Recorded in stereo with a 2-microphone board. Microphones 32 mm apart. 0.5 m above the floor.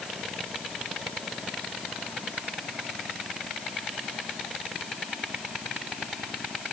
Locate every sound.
Only background noise.